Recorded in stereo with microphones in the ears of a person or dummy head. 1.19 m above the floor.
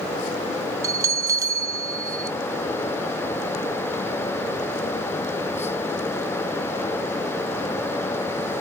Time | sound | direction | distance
0.8 | a bell | 15° right (ahead or behind) | 0.8 m